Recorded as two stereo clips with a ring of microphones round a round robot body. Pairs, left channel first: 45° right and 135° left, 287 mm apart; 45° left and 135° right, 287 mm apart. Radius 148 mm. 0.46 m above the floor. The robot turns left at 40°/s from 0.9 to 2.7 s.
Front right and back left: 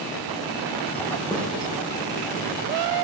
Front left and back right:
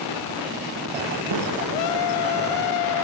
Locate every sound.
1.3 s a snare drum: 125° right, 9 m; by 1.5 s 130° right, 9 m